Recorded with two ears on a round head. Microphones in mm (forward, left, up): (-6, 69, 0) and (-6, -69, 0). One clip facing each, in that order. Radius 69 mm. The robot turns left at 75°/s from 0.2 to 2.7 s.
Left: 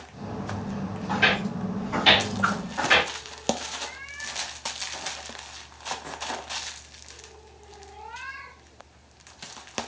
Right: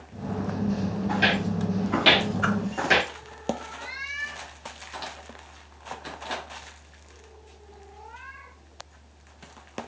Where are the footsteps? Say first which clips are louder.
Left 1 dB; 10° right (ahead or behind), 2.5 m; by 3.1 s 35° right (ahead or behind), 0.8 m.